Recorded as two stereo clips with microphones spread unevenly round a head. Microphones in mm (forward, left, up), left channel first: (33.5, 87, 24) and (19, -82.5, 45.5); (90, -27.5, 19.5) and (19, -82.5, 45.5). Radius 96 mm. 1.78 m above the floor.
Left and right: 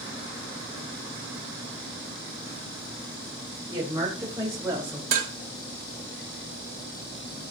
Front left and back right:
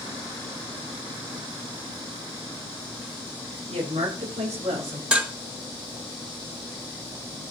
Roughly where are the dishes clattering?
Right.